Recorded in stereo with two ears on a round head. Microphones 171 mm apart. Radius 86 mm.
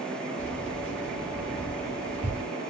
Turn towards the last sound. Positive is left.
turn(degrees=-60)  # may be behind; listen again after turning